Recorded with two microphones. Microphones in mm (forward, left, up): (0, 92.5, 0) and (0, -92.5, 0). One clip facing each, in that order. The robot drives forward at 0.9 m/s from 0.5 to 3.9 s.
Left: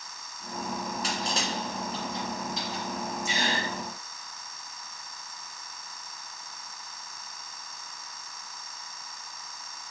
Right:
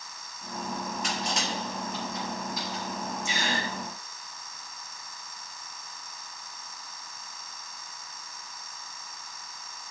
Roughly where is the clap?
I don't hear a clap.